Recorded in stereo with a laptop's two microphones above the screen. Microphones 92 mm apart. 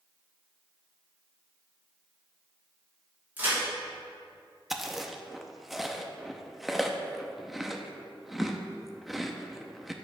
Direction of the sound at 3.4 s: 20° right (ahead or behind).